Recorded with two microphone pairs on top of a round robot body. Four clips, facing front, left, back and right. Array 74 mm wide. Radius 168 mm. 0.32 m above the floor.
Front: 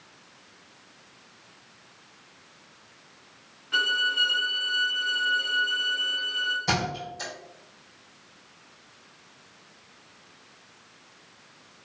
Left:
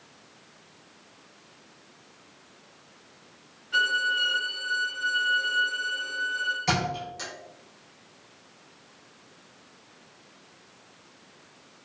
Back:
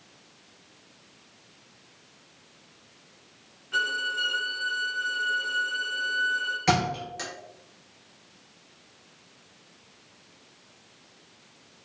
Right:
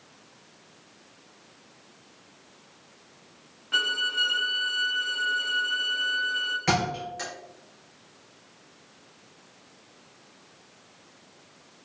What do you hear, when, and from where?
3.7 s a violin: 75° right, 1.3 m
6.7 s a thud: 130° right, 1.5 m